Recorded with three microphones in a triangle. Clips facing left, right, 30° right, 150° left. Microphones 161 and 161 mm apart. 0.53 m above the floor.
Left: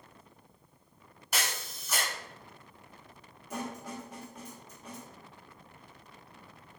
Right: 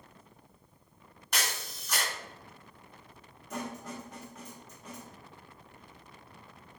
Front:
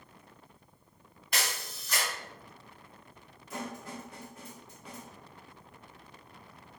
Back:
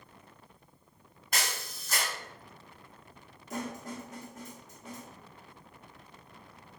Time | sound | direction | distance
1.3 | a camera shutter | 170° left | 1.8 m
3.5 | a snare drum | 165° left | 1.4 m